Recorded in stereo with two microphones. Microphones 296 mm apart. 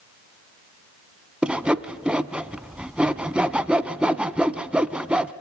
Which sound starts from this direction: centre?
Sawing, at 1.4 s.